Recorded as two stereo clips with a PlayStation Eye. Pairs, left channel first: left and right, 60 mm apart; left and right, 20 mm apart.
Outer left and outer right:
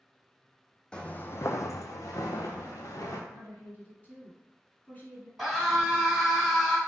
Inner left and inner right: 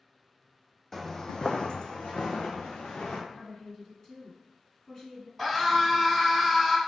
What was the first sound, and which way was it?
Footsteps, 15° left (ahead or behind).